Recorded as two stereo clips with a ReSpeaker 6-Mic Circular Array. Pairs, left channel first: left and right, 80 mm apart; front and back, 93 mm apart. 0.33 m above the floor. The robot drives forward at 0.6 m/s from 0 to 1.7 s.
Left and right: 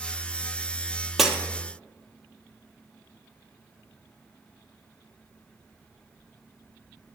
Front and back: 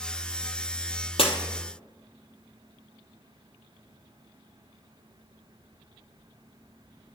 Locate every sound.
1.2 s breaking glass: 5° right, 1.2 m